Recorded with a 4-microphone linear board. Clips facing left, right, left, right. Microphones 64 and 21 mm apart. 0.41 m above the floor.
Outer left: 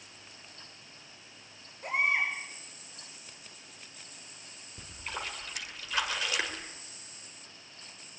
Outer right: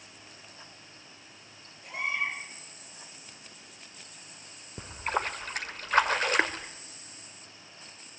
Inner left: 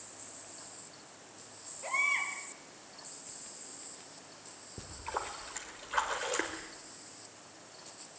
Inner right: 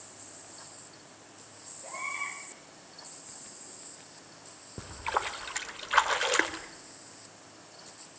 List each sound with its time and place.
1.8 s a baby crying: 65° left (ahead or behind), 6 m
4.8 s a splash: 45° right (ahead or behind), 1.4 m